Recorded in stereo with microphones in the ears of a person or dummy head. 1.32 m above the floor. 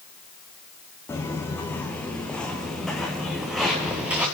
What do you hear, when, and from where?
1.1 s footsteps: 10° left (ahead or behind), 6 m; by 4.2 s 10° right (ahead or behind), 7 m